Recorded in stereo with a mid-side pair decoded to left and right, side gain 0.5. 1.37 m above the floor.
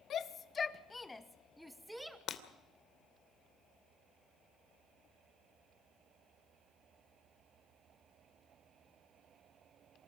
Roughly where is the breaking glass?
Ahead left.